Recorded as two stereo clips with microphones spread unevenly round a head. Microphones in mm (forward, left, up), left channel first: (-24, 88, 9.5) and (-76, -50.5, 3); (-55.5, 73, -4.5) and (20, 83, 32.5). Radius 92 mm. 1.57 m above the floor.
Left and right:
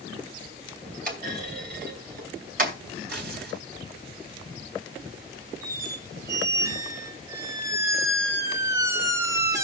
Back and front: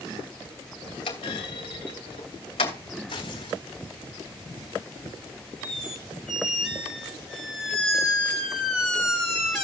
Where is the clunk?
125° right, 2.5 m.